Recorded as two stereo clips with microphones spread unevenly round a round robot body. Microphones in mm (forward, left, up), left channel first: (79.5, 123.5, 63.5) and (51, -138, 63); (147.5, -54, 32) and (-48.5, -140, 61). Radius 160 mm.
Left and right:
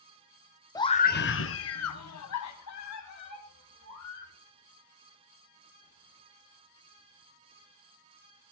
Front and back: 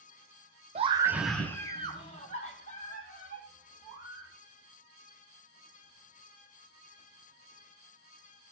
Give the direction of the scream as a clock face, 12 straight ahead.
7 o'clock.